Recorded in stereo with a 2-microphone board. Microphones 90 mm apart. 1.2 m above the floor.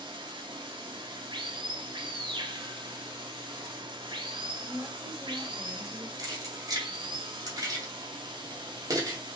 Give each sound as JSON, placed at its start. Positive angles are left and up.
{"t": 0.0, "sound": "running water", "side_deg": -60, "distance_m": 1.4}
{"t": 4.6, "sound": "a woman speaking", "side_deg": 5, "distance_m": 1.7}
{"t": 6.2, "sound": "keys jangling", "side_deg": -45, "distance_m": 2.5}